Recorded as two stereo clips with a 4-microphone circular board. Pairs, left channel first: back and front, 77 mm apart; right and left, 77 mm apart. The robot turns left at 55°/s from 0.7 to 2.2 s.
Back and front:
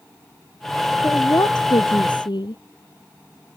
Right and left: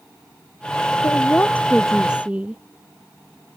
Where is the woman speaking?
130° right; by 2.6 s 165° left.